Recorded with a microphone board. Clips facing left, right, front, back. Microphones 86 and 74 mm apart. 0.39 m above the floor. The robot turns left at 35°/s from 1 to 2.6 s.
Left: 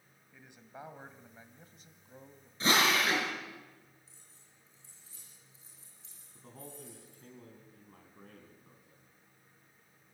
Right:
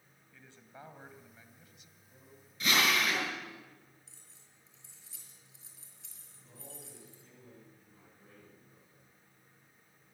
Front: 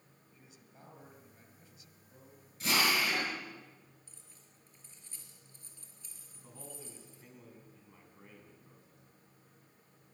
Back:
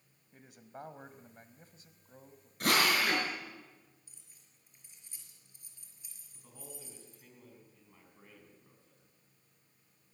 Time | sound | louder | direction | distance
0.3 | a man speaking | left 3 dB, back 11 dB | 160° left | 1.9 m
2.6 | a drill | left 2 dB, back 2 dB | 150° left | 5.5 m
4.1 | keys jangling | even, front 7 dB | 105° right | 5 m
6.3 | a man speaking | left 4 dB, front 1 dB | 85° left | 4 m